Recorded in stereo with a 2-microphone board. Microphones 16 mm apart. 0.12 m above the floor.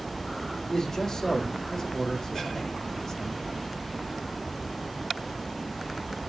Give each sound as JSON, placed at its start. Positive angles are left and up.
{"t": 0.7, "sound": "a man speaking", "side_deg": 25, "distance_m": 7.0}